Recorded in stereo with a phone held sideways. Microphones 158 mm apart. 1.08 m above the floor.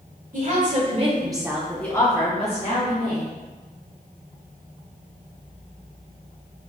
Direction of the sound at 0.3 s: 55° right (ahead or behind).